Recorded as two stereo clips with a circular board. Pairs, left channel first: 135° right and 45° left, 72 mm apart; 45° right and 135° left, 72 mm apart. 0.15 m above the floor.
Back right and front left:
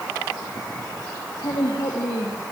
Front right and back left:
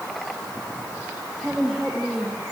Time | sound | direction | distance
1.4 | a woman speaking | 135° right | 5 m